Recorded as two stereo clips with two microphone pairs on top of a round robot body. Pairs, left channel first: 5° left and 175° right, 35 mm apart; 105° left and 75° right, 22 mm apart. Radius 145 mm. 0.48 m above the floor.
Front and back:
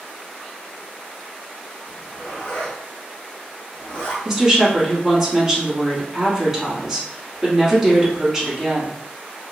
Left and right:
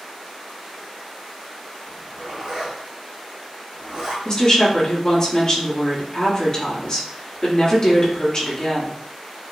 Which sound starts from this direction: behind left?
A woman speaking, at 4.2 s.